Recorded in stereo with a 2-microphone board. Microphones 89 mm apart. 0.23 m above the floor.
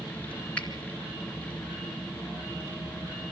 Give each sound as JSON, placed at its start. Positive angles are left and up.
{"t": 0.6, "sound": "a finger snap", "side_deg": 15, "distance_m": 2.5}